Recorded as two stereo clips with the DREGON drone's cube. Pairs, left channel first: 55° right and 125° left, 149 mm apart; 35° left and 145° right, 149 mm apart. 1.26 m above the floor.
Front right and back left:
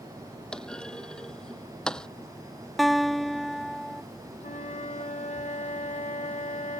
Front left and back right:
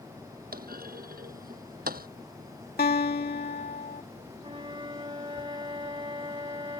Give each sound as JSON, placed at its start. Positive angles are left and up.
{"t": 0.5, "sound": "a clunk", "azimuth_deg": -140}
{"t": 2.8, "sound": "a guitar", "azimuth_deg": 35}
{"t": 4.4, "sound": "a flute", "azimuth_deg": -90}